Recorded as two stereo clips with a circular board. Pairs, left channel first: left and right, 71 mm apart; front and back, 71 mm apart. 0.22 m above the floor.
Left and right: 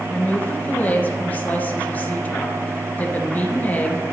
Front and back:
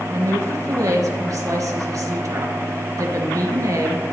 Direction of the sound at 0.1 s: 150° left.